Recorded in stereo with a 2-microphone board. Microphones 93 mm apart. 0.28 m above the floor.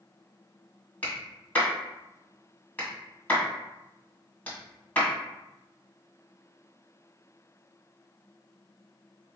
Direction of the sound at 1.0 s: 15° left (ahead or behind).